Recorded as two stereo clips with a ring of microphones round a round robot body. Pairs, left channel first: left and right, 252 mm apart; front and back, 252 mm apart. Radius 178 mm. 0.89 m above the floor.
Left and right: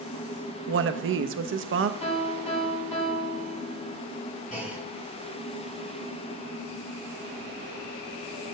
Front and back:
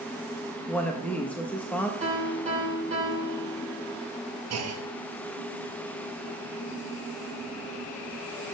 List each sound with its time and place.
0.7 s a woman speaking: 85° right, 0.6 m
2.0 s a piano: 115° left, 4.5 m
4.5 s a clunk: 160° left, 1.1 m